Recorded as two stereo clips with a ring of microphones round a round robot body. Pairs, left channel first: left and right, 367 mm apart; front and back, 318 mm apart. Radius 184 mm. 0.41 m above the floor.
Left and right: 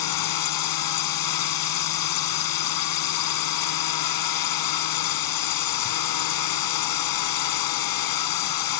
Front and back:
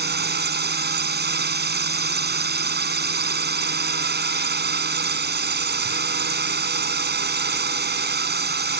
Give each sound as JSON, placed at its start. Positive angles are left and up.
{"t": 0.0, "sound": "a drone", "azimuth_deg": 125}